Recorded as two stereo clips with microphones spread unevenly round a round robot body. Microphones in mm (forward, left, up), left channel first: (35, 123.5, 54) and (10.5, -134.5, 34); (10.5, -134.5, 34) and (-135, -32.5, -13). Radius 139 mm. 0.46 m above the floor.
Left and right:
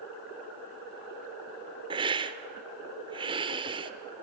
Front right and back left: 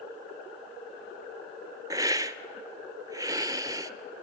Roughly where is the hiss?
Behind.